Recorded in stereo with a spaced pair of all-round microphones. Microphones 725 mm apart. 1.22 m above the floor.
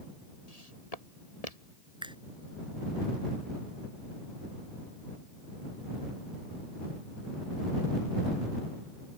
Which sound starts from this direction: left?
Footsteps, at 0.5 s.